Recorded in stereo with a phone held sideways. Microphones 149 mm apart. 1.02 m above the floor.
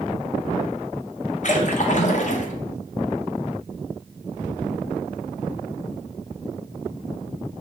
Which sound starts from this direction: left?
A splash, at 1.4 s.